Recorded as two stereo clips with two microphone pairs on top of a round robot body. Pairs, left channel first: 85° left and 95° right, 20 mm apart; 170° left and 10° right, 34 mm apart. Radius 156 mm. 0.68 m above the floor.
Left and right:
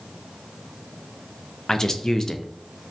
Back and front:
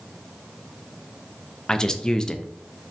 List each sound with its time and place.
1.7 s a man speaking: 150° left, 0.5 m